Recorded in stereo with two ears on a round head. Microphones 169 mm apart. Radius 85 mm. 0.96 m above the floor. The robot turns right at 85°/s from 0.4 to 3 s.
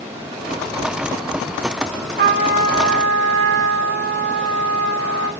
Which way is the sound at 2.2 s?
130° right.